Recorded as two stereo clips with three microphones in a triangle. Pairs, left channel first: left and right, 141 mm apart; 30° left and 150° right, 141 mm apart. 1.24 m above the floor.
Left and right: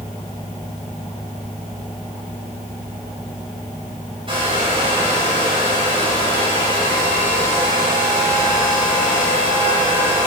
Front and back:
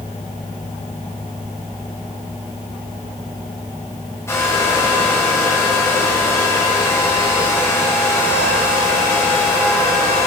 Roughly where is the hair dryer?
Ahead right.